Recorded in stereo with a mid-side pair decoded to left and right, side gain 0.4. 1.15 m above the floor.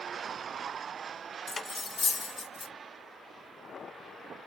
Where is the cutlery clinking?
35° left, 0.6 m.